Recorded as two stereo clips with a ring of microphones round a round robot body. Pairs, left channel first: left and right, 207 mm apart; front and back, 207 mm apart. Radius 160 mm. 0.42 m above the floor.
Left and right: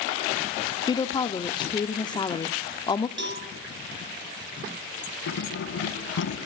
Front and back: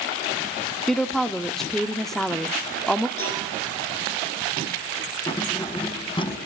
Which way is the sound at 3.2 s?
65° right.